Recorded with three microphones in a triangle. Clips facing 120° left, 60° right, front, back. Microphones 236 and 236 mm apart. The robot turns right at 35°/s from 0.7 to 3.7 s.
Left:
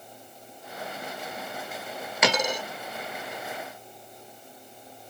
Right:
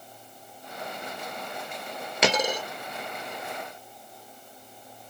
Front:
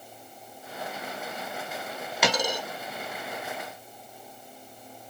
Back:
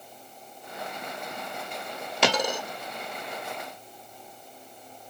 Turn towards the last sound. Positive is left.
turn(degrees=-70)